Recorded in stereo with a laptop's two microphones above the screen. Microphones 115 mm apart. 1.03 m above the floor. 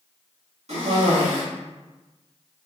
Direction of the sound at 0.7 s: 65° right (ahead or behind).